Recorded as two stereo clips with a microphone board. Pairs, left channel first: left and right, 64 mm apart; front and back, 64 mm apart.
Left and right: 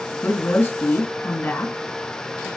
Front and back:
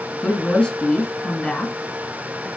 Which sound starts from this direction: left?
A woman speaking, at 0.2 s.